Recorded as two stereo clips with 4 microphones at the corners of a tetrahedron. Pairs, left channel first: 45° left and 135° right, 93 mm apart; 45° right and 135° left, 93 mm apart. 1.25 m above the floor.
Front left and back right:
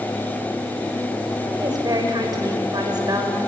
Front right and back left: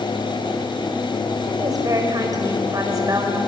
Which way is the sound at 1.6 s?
175° right.